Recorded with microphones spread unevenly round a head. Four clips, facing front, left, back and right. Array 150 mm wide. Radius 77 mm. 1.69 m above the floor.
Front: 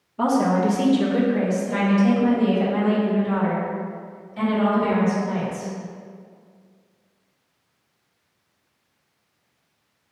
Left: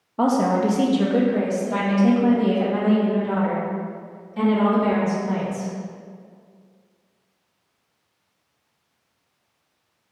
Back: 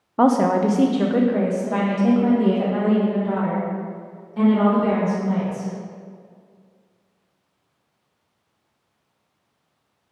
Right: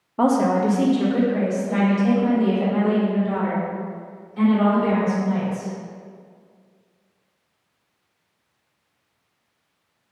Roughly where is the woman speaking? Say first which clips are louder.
Right 1 dB, back 3 dB; behind.